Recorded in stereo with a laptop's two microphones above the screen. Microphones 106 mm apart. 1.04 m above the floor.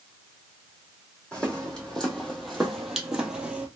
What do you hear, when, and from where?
1.3 s footsteps: 10° left (ahead or behind), 1.9 m; by 3.7 s 10° right (ahead or behind), 1.1 m